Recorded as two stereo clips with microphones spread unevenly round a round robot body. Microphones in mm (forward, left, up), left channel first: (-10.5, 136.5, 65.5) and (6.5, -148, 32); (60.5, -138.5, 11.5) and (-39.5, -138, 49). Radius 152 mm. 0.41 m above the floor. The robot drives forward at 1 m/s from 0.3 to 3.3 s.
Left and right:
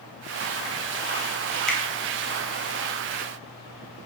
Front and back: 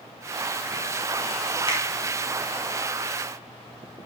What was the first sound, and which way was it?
A finger snap, straight ahead.